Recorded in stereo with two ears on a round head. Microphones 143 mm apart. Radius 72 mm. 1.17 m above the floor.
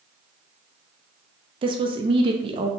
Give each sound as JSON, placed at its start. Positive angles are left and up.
{"t": 1.6, "sound": "a woman speaking", "side_deg": -35, "distance_m": 0.5}